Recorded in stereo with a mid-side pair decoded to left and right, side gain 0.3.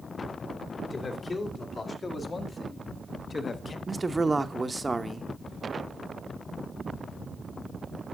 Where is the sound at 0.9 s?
55° left, 2.5 m.